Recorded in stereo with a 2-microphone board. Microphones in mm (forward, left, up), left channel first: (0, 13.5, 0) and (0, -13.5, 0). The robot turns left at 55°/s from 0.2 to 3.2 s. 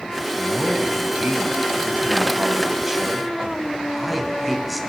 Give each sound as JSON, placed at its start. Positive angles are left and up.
{"t": 0.4, "sound": "a man speaking", "azimuth_deg": -25, "distance_m": 3.5}